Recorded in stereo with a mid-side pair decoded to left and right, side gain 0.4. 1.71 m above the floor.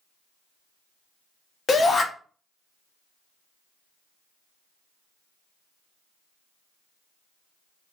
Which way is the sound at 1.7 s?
50° left.